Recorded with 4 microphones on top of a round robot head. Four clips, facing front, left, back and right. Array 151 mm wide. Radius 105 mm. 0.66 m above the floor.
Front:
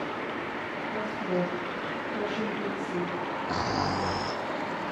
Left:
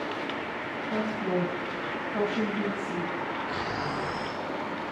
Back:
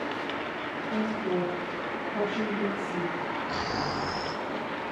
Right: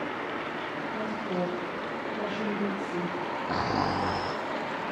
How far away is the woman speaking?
About 6.5 m.